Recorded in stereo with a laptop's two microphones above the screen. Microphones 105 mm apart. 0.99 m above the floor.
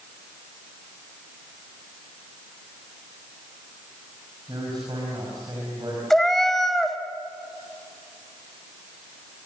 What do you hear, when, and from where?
4.5 s a man speaking: 40° right (ahead or behind), 5.5 m
6.1 s a cat meowing: 5° left (ahead or behind), 1.5 m